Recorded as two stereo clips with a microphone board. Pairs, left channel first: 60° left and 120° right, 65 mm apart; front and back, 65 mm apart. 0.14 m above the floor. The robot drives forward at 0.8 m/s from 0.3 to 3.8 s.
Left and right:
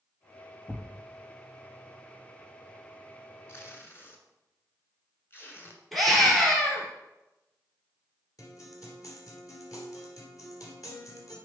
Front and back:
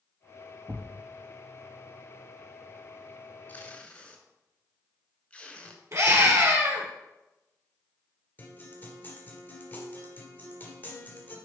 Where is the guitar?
60° left, 2 m.